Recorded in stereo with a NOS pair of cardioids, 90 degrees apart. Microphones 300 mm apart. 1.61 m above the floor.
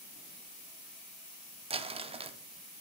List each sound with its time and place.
1.7 s crumpling: 20° right, 0.5 m